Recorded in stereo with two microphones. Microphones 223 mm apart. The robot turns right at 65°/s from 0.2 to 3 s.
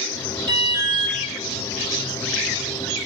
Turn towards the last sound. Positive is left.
turn(degrees=90)